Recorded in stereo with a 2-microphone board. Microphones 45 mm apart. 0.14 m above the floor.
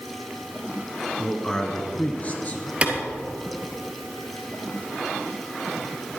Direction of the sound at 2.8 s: 30° right (ahead or behind).